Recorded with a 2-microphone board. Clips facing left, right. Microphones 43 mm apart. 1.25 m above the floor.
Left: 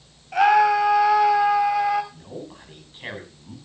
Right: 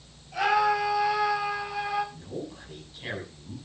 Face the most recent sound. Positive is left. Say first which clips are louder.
# even
turn(degrees=30)  # may be behind; listen again after turning